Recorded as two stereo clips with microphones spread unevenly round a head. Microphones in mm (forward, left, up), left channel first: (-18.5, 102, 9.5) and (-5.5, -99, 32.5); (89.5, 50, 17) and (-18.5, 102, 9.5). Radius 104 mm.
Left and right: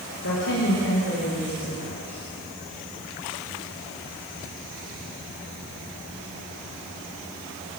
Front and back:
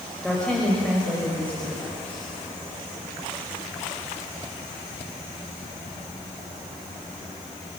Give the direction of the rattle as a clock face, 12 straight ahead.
I don't hear a rattle.